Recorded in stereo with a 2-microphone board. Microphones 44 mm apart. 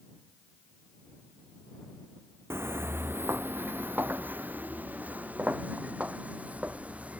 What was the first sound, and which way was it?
Footsteps, 70° right (ahead or behind).